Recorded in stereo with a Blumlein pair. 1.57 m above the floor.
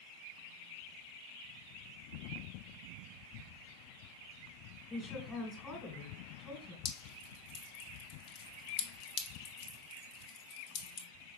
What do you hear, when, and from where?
4.9 s a woman speaking: 20° left, 2 m
6.8 s dripping: 40° left, 1.3 m